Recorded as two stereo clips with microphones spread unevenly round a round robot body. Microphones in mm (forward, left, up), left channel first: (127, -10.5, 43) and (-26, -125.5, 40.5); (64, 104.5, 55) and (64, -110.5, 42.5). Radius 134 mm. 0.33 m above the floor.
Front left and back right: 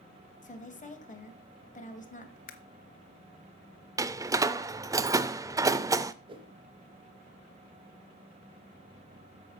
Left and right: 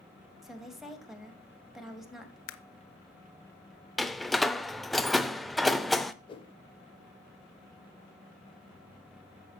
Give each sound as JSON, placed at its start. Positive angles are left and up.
{"t": 0.4, "sound": "a woman speaking", "azimuth_deg": -5, "distance_m": 2.5}
{"t": 2.5, "sound": "a camera shutter", "azimuth_deg": 85, "distance_m": 0.8}
{"t": 4.0, "sound": "a door slam", "azimuth_deg": -170, "distance_m": 0.5}
{"t": 6.3, "sound": "a whoosh", "azimuth_deg": 155, "distance_m": 0.7}